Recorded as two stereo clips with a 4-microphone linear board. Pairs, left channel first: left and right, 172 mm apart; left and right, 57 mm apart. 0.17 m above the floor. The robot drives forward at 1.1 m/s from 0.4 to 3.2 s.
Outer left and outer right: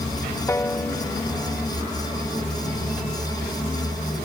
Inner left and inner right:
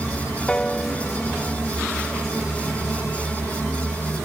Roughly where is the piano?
Centre.